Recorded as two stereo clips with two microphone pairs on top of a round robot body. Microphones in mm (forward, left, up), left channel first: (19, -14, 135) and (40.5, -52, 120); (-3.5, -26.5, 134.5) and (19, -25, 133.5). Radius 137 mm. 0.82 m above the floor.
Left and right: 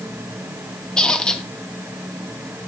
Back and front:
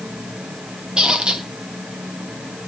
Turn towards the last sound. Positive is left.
turn(degrees=55)